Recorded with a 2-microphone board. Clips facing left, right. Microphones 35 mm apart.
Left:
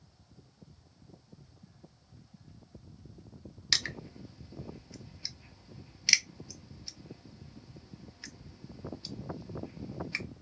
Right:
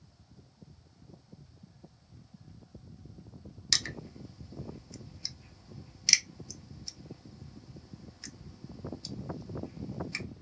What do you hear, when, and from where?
3.7 s crushing: 15° left (ahead or behind), 0.6 m